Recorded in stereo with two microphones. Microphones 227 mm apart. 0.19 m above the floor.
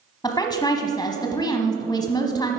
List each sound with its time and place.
0.2 s a woman speaking: 20° left (ahead or behind), 1.0 m